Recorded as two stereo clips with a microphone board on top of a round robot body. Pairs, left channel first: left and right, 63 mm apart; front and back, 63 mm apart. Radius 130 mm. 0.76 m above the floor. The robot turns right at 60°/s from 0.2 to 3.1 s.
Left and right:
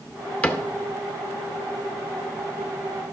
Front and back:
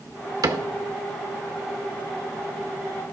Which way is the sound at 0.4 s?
155° left.